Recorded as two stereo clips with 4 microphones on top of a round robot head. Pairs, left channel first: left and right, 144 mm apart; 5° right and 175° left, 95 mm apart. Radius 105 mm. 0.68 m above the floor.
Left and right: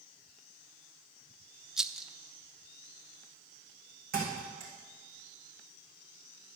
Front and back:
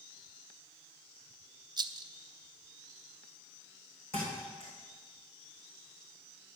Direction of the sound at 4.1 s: 55° right.